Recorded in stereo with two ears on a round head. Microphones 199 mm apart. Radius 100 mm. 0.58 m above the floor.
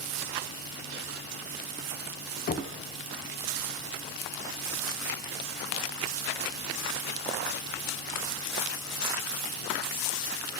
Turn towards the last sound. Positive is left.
turn(degrees=40)  # may be behind; listen again after turning